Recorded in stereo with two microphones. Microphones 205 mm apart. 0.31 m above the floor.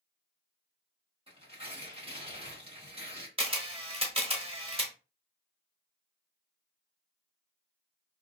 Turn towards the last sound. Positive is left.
turn(degrees=-30)  # may be behind; listen again after turning